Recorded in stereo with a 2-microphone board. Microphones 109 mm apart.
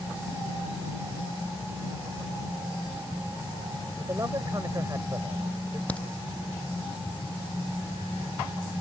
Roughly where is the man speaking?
Right.